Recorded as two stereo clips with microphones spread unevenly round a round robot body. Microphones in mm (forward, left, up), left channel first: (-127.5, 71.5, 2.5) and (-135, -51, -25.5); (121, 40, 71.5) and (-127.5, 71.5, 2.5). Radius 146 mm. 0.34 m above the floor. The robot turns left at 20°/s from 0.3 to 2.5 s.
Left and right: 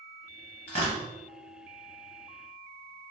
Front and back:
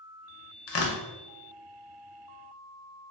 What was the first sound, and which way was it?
Tearing paper, 35° left.